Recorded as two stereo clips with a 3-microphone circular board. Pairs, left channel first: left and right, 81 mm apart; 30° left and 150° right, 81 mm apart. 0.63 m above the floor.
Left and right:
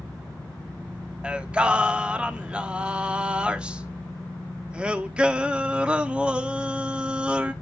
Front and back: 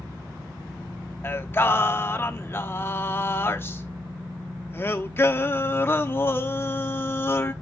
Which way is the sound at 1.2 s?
20° right.